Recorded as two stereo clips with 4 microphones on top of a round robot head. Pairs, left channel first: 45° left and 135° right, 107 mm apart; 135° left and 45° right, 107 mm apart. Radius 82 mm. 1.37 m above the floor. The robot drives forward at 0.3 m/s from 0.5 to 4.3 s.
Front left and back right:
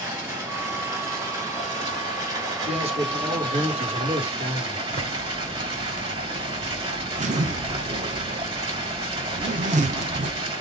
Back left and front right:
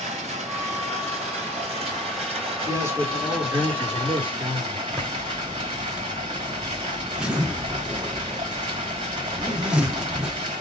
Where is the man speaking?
110° right, 2.5 m; by 4.8 s 120° right, 2.5 m.